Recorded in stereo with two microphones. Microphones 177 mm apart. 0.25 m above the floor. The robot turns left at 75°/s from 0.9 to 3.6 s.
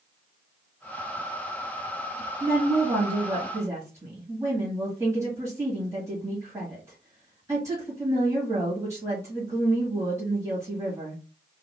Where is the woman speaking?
60° right, 1.4 m; by 11.2 s 150° right, 1.4 m.